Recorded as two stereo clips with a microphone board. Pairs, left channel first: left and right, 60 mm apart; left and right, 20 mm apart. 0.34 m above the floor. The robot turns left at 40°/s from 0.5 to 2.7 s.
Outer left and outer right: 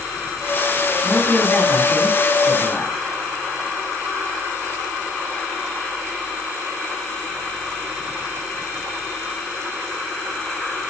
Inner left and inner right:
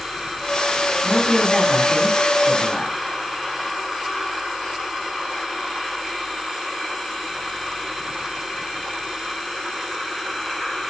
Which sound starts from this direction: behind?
A man speaking, at 1.0 s.